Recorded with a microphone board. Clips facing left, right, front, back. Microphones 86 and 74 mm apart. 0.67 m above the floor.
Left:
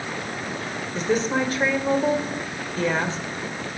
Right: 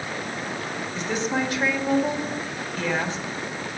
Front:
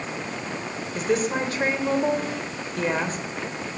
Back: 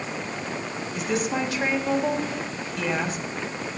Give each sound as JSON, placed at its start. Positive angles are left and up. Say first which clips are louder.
{"t": 0.9, "sound": "a woman speaking", "louder": "left 4 dB, front 3 dB", "azimuth_deg": 45, "distance_m": 3.0}